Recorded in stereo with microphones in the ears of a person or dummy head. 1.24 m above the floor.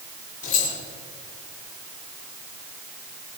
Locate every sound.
0.4 s keys jangling: 45° left (ahead or behind), 2.5 m